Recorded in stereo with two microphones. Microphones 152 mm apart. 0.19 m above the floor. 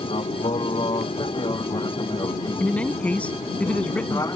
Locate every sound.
0.0 s an aircraft: 35° left (ahead or behind); by 4.4 s 20° left (ahead or behind)
2.6 s a man speaking: 10° left (ahead or behind)